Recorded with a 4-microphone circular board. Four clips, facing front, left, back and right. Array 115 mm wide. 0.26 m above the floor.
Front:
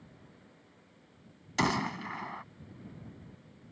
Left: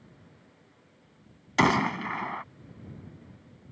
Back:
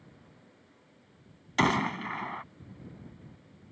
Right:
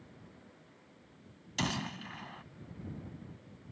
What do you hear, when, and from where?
1.6 s a gunshot: 110° left